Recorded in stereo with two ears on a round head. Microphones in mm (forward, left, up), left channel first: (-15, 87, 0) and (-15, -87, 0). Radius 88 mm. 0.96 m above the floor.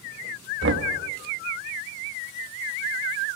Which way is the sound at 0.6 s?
60° right (ahead or behind).